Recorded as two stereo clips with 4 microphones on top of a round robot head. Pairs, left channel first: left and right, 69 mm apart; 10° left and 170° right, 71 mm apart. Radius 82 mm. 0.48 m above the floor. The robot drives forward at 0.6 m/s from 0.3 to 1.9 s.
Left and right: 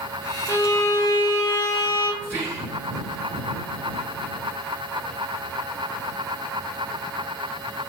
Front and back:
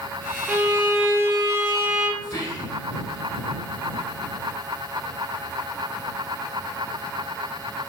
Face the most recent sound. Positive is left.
turn(degrees=-30)